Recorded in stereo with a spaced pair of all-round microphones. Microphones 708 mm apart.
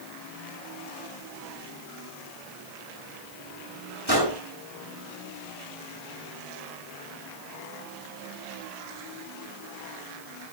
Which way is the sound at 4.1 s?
35° right (ahead or behind).